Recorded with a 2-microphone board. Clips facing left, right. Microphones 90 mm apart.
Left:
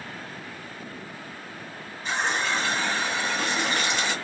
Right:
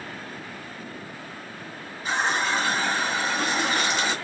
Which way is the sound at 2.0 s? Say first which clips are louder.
Right 2 dB; 10° right (ahead or behind).